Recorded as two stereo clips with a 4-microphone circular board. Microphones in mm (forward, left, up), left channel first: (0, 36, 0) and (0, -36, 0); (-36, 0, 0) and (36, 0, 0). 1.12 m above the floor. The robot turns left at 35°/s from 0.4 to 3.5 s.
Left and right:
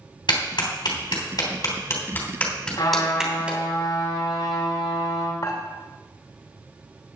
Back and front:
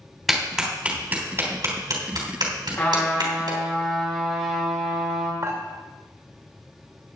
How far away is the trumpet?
About 6 m.